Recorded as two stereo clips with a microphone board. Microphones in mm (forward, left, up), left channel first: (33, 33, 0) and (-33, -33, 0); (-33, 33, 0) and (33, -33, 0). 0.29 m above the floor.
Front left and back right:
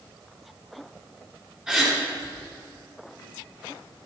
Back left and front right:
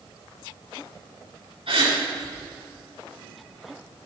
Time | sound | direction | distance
1.7 | a gasp | 55° right | 4.5 m